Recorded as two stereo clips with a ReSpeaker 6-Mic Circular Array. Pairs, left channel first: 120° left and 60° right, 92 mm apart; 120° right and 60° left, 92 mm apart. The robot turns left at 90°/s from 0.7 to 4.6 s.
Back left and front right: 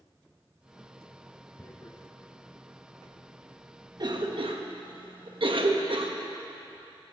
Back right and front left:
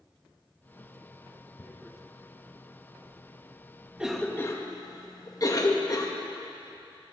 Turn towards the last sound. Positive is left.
turn(degrees=-75)